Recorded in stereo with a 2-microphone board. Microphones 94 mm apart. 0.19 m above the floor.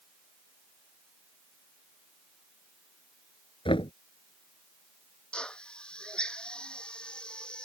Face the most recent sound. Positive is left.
turn(degrees=10)  # may be behind; listen again after turning